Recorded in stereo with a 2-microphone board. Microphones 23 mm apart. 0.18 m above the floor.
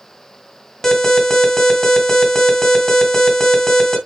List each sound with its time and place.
0.8 s an alarm: 20° left (ahead or behind), 2 m